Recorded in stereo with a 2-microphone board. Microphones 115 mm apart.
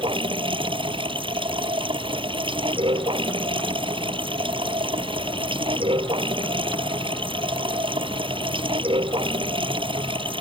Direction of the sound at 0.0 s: 45° right (ahead or behind).